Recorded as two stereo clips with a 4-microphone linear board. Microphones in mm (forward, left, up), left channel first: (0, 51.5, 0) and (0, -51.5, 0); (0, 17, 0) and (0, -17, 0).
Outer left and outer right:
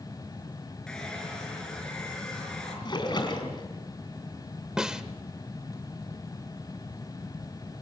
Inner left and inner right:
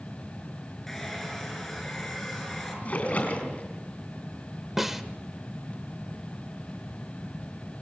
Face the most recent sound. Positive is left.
turn(degrees=-5)  # may be behind; listen again after turning